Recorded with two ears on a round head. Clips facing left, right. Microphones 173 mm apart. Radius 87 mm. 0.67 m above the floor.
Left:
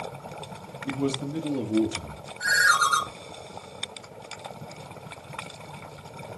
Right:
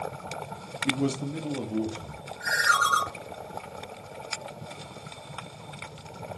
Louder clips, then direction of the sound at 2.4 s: Left 2 dB; 35° left (ahead or behind).